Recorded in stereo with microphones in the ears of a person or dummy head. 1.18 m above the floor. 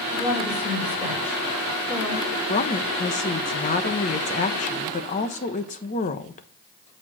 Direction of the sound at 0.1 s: 10° left (ahead or behind).